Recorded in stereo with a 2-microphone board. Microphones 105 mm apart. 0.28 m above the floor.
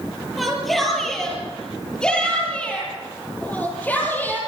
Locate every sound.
0.4 s a shout: centre (ahead or behind), 8.5 m; by 4.4 s 15° left (ahead or behind), 11 m